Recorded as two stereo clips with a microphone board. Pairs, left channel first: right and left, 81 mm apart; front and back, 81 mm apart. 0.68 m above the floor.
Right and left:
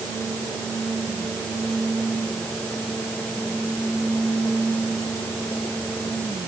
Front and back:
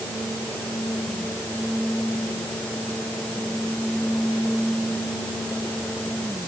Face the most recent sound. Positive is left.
No sound to turn to.